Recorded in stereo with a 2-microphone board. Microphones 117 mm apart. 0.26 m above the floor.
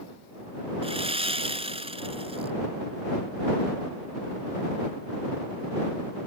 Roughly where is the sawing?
Right.